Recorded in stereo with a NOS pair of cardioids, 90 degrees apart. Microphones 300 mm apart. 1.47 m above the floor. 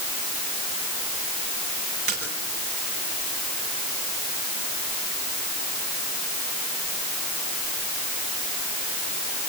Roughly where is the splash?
Ahead right.